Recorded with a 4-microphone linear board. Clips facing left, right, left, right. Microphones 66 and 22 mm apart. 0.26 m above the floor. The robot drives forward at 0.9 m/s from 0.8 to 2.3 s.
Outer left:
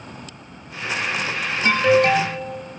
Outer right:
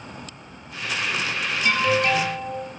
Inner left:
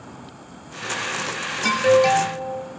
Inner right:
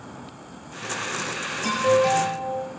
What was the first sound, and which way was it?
An alarm, 45° left (ahead or behind).